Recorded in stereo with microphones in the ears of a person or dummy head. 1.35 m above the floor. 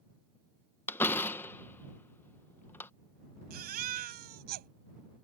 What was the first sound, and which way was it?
A door slam, 10° left (ahead or behind).